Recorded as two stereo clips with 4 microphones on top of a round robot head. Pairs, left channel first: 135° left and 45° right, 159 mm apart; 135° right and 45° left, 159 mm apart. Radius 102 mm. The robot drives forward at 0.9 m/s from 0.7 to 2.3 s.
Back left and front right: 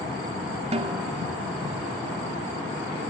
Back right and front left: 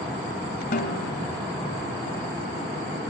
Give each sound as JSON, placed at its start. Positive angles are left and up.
{"t": 0.7, "sound": "a snare drum", "azimuth_deg": -95, "distance_m": 0.7}